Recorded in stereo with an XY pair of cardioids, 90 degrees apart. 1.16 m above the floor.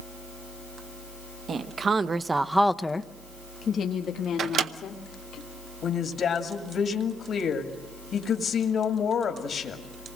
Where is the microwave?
70° right, 0.8 m.